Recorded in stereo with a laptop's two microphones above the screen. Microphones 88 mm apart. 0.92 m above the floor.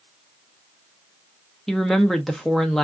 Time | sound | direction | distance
1.7 | a woman speaking | 5° left (ahead or behind) | 0.5 m